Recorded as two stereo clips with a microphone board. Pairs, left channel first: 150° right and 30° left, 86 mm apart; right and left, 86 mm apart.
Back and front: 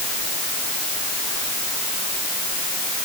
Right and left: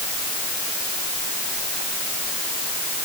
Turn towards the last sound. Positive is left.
No sound to turn to.